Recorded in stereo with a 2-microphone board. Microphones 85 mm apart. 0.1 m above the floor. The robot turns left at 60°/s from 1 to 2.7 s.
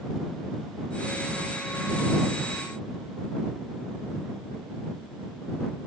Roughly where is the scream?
No scream in this recording.